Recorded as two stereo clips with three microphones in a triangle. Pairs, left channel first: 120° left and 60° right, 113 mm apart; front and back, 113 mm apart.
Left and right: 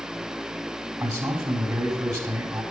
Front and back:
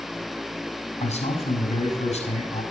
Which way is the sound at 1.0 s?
Straight ahead.